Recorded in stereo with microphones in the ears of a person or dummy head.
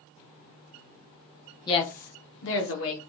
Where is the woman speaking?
20° left (ahead or behind), 0.6 m; by 3.0 s 70° left (ahead or behind), 1.5 m.